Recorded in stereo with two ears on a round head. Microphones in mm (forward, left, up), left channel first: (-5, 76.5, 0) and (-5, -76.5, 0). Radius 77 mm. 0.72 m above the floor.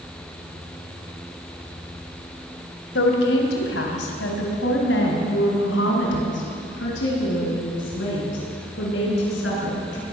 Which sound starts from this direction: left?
A woman speaking, at 3.0 s.